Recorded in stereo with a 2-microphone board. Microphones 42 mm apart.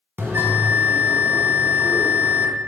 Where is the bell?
55° right (ahead or behind), 1.0 m.